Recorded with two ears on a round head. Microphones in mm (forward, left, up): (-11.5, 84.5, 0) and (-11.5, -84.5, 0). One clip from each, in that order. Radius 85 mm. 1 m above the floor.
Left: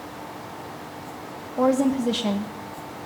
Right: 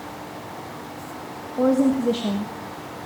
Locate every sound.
1.6 s a woman speaking: 40° left (ahead or behind), 1.2 m